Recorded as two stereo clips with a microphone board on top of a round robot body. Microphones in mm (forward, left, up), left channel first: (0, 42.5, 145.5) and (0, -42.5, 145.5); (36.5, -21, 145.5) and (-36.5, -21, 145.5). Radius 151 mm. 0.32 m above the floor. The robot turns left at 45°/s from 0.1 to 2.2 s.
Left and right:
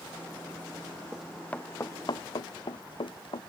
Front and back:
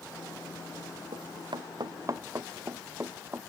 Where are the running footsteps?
175° right; by 3.4 s 115° left.